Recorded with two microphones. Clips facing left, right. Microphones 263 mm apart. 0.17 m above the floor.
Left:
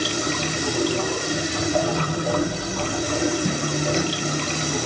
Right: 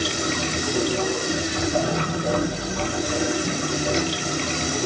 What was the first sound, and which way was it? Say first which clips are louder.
Running water: even; 15° right (ahead or behind).